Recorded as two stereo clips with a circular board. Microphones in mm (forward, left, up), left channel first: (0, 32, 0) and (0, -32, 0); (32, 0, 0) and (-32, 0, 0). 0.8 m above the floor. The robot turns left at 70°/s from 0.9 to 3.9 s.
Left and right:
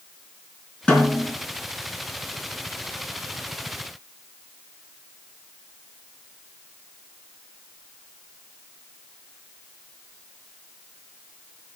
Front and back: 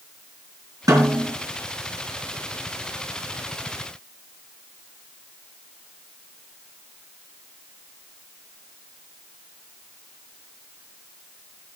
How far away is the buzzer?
No buzzer in this recording.